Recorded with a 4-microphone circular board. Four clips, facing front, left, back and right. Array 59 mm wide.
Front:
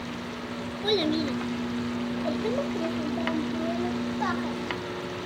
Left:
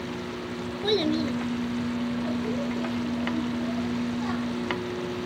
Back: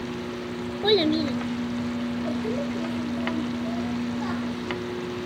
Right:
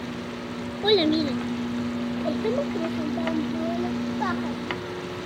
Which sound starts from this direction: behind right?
A child speaking, at 0.8 s.